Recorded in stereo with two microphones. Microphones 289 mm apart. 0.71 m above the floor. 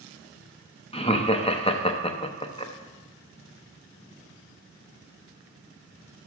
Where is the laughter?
20° left (ahead or behind), 0.7 m.